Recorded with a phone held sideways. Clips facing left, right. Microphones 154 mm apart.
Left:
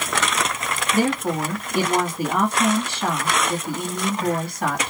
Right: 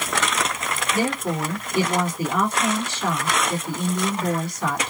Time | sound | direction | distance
0.9 | a woman speaking | 60° left (ahead or behind) | 2 m